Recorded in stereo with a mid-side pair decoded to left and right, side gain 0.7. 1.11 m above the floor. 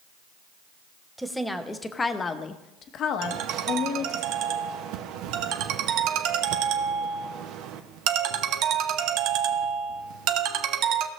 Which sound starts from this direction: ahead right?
A ringtone, at 3.2 s.